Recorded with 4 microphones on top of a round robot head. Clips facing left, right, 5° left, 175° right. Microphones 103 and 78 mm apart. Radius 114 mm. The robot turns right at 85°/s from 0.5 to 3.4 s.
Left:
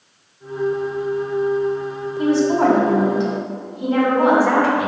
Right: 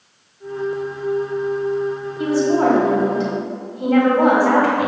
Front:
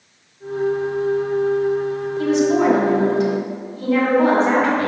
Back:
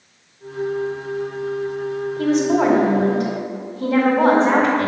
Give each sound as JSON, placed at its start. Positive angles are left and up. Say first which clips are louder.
{"t": 2.2, "sound": "a woman speaking", "louder": "left 1 dB, front 1 dB", "azimuth_deg": 145, "distance_m": 2.5}